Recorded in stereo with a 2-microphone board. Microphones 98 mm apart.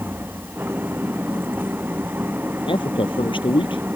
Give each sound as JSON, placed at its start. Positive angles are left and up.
{"t": 0.0, "sound": "an engine running", "side_deg": -20}
{"t": 2.7, "sound": "a man speaking", "side_deg": 60}